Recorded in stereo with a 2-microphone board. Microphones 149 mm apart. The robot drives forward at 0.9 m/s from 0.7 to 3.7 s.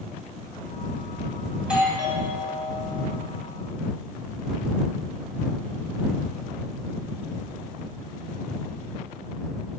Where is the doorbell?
5° right (ahead or behind), 3 m.